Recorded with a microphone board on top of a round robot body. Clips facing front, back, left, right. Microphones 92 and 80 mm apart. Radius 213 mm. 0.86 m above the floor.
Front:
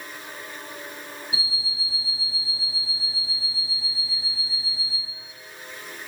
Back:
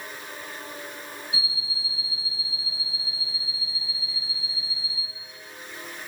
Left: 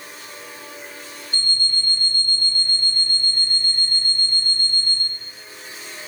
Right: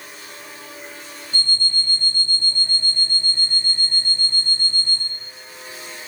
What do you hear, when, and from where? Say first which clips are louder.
1.3 s an alarm clock: front 1 dB, right 2 dB; 5° right, 0.8 m